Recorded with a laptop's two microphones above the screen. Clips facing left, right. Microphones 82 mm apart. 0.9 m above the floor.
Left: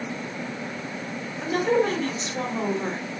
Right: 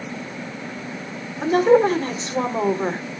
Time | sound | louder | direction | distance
1.4 | a woman speaking | right 7 dB | 35° right (ahead or behind) | 3.5 m